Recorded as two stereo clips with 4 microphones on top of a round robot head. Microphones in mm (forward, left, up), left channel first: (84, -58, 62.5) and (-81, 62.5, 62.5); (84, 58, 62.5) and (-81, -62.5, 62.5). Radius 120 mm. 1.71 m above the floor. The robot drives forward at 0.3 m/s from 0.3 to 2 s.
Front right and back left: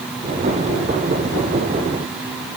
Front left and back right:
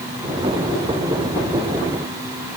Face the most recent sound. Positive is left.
No sound to turn to.